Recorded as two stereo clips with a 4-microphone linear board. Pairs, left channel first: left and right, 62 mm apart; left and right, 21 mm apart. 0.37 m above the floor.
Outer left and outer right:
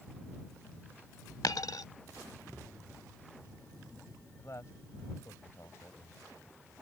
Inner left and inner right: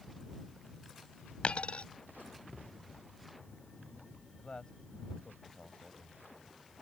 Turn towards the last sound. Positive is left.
turn(degrees=55)  # may be behind; listen again after turning